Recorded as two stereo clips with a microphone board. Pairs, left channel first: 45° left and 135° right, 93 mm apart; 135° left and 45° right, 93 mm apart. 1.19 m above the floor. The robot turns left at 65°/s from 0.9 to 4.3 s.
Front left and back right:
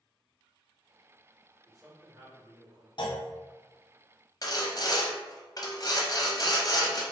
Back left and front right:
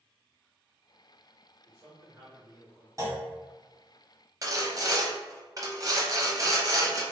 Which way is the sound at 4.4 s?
Straight ahead.